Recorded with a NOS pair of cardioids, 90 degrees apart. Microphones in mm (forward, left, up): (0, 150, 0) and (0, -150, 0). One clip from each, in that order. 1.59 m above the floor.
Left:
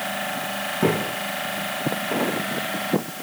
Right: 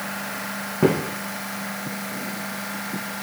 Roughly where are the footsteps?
Ahead right.